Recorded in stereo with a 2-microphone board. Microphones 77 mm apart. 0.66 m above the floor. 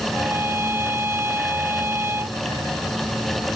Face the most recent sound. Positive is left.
turn(degrees=-30)  # may be behind; listen again after turning